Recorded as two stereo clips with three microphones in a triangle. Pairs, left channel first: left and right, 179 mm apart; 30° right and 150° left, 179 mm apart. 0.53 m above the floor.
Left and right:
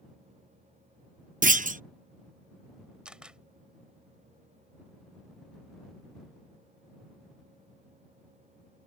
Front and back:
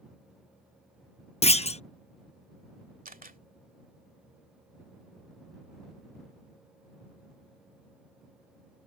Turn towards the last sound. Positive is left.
turn(degrees=-175)